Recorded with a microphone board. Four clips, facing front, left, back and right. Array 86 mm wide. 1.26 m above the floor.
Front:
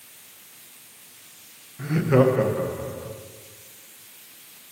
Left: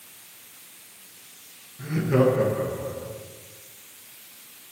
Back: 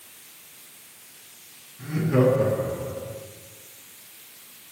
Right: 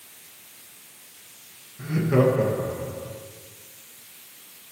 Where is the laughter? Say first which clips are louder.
Even, front 2 dB; 10° right, 1.1 m; by 3.1 s straight ahead, 1.9 m.